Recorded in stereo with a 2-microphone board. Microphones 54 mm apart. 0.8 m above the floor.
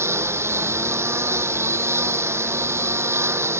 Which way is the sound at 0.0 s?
55° right (ahead or behind).